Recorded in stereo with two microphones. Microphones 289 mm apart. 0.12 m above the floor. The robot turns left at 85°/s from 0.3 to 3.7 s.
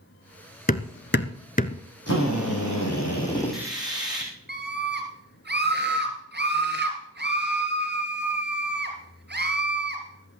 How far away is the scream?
About 2.5 m.